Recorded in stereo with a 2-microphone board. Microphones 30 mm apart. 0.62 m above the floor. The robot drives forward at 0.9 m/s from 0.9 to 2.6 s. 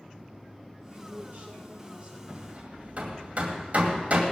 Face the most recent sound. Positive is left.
turn(degrees=-50)  # may be behind; listen again after turning